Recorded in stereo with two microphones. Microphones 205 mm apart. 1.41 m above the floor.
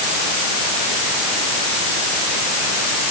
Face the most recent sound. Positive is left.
No sound to turn to.